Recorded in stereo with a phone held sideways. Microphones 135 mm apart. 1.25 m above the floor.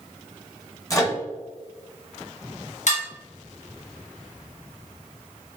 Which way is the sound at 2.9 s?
60° left (ahead or behind).